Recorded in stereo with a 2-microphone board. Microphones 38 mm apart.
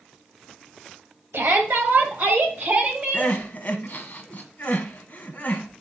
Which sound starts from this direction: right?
A shout, at 1.3 s.